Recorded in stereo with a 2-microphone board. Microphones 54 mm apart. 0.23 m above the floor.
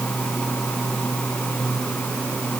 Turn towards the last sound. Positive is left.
No sound to turn to.